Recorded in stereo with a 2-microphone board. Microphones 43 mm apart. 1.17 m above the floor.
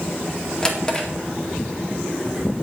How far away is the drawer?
About 1.8 m.